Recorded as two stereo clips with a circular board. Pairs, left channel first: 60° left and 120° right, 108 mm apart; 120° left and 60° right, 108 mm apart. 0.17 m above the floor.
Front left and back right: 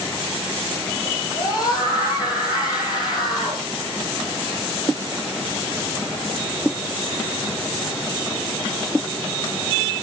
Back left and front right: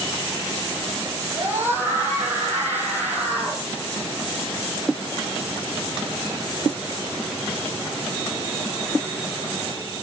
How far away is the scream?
About 7.5 m.